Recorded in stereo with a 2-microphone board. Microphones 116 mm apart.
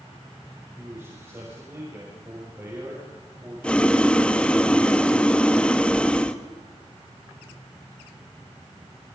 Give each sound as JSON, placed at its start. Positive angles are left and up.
{"t": 0.8, "sound": "a man speaking", "side_deg": -25, "distance_m": 6.5}
{"t": 3.6, "sound": "boiling", "side_deg": 10, "distance_m": 1.1}